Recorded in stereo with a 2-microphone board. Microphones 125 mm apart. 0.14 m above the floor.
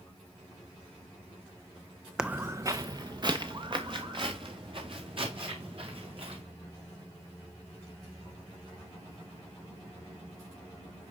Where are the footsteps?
5° right (ahead or behind), 0.5 m; by 6.4 s 50° right (ahead or behind), 4 m.